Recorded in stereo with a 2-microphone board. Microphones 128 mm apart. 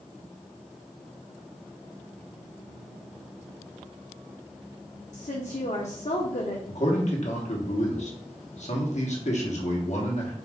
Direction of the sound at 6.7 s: 65° left (ahead or behind).